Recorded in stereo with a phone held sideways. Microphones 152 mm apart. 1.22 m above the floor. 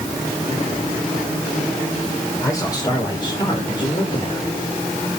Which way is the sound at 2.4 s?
20° left (ahead or behind).